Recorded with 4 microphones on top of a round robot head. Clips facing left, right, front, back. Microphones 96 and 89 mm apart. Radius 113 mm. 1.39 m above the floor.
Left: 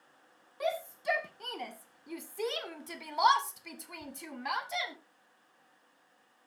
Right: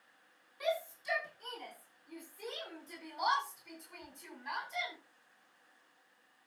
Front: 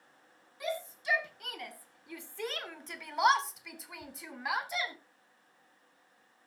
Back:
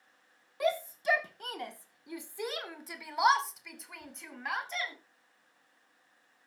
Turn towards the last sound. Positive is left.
turn(degrees=80)